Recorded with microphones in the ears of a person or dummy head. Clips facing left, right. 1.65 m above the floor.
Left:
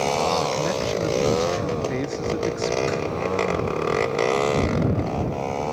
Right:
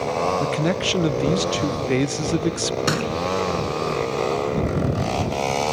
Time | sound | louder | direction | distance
0.4 | a man speaking | right 2 dB | 35° right (ahead or behind) | ?
2.9 | a thud | right 1 dB | 75° right (ahead or behind) | ?